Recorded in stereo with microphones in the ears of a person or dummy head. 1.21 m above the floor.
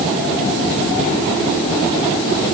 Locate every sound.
Only background noise.